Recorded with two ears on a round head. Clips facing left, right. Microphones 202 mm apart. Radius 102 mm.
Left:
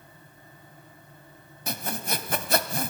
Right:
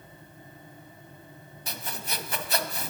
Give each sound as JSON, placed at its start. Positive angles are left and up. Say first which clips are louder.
{"t": 1.7, "sound": "sawing", "louder": "left 6 dB", "side_deg": 40, "distance_m": 2.0}